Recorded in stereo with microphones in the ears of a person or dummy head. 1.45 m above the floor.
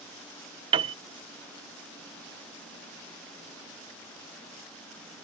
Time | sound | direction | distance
0.7 | a piano | 30° right (ahead or behind) | ?